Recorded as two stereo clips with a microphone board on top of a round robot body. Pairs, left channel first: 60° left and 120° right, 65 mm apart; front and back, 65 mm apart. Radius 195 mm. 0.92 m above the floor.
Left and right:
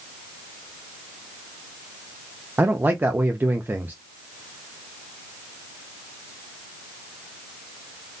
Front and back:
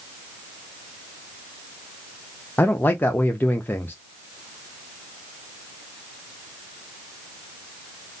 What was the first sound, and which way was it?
A man speaking, 60° right.